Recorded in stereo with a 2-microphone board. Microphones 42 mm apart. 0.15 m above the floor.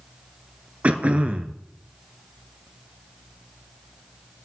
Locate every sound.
0.8 s throat clearing: 30° right (ahead or behind), 0.8 m